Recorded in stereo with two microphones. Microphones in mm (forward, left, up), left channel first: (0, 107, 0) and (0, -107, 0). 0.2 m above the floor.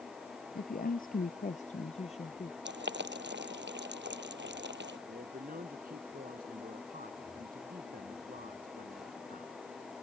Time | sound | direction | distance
0.6 | a woman speaking | 45° left (ahead or behind) | ?
2.6 | boiling | 55° right (ahead or behind) | ?
5.1 | a man speaking | 45° right (ahead or behind) | ?